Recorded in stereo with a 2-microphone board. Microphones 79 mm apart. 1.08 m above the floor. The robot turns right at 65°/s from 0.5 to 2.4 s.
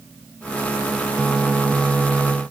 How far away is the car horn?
I don't hear a car horn.